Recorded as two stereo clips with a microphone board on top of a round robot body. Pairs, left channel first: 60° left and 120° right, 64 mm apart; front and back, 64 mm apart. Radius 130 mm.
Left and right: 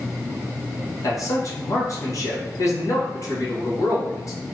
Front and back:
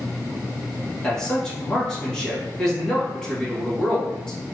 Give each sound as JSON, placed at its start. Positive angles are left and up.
{"t": 1.0, "sound": "a man speaking", "azimuth_deg": 80, "distance_m": 1.5}